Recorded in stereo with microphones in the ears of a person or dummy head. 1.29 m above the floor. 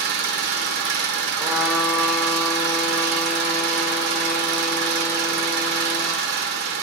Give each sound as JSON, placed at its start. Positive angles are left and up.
{"t": 0.0, "sound": "an engine running", "side_deg": -60, "distance_m": 1.1}
{"t": 1.4, "sound": "a trumpet", "side_deg": -5, "distance_m": 1.3}